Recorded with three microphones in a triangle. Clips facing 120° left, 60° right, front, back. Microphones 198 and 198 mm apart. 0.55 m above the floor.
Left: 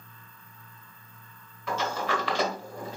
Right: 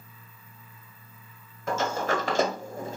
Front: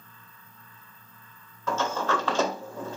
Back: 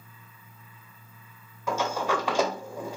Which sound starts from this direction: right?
A sliding door, at 1.7 s.